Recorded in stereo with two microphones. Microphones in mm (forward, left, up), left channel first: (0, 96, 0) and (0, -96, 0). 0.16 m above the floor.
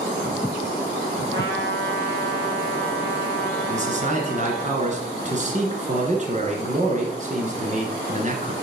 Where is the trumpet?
60° right (ahead or behind), 2.5 m.